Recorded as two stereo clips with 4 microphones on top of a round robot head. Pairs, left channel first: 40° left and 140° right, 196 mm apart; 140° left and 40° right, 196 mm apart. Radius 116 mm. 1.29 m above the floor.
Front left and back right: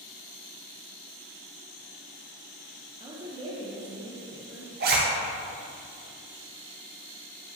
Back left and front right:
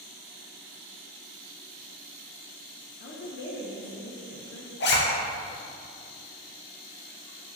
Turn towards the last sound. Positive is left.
turn(degrees=175)